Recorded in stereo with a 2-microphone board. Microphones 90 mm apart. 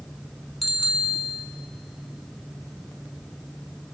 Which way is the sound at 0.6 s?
Centre (ahead or behind).